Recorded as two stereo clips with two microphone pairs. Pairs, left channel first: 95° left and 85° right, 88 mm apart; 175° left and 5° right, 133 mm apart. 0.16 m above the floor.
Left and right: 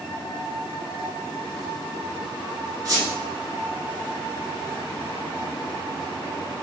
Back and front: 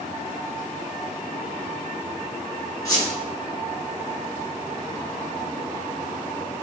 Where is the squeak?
125° right, 1.5 m.